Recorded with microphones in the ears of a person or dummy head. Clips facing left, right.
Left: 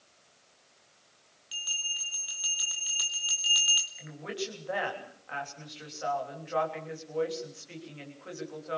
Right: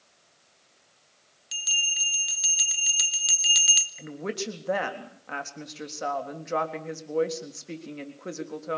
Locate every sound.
1.5 s a bell: 30° right (ahead or behind), 1.4 m
4.0 s a woman speaking: 55° right (ahead or behind), 3.5 m